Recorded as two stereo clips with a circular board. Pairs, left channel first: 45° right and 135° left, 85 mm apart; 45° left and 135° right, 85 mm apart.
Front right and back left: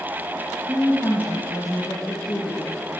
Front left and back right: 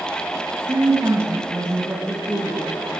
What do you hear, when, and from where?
0.7 s a woman speaking: 145° right, 1.1 m; by 2.7 s 45° right, 2.5 m